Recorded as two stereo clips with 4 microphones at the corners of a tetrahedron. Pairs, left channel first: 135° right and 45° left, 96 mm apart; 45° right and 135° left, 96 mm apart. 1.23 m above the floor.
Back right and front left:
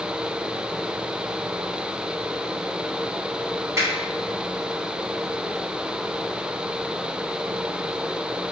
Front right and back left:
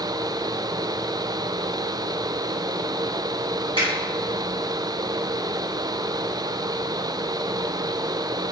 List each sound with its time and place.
3.8 s a finger snap: 105° left, 1.6 m